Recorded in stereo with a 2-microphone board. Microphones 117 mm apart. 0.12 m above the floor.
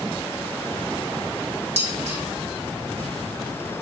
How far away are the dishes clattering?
About 3.5 m.